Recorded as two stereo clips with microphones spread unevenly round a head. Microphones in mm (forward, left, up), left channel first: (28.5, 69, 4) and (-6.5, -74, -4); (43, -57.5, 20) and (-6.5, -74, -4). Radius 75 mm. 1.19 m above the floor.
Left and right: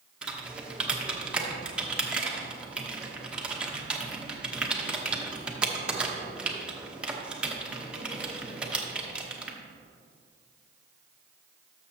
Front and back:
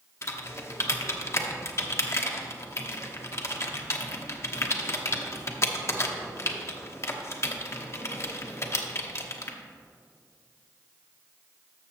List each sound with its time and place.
0.2 s typing on a keyboard: 20° right, 1.0 m